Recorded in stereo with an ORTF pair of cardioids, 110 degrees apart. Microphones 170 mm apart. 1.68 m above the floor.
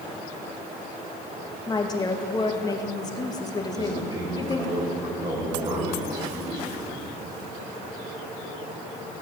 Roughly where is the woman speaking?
Ahead left.